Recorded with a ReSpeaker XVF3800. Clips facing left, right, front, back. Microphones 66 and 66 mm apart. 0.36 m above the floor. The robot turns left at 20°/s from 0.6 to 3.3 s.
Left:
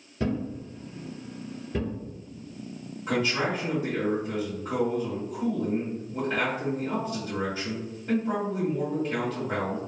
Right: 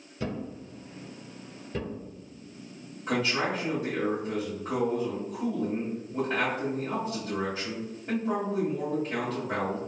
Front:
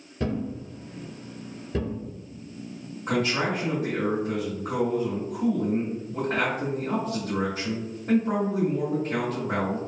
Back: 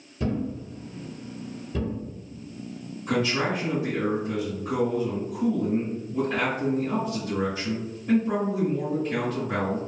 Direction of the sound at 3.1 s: Straight ahead.